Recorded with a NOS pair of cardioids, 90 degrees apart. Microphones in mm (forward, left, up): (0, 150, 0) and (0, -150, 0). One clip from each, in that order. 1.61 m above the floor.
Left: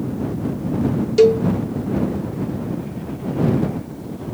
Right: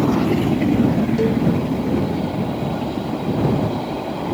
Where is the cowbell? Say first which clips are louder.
Left 11 dB; 65° left.